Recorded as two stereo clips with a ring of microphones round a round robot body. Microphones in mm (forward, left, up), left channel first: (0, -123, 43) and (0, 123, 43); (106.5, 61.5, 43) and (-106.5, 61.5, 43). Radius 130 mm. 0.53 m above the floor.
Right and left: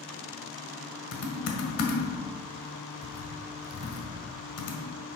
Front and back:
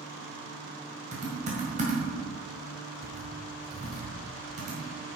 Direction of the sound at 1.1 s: 120° right.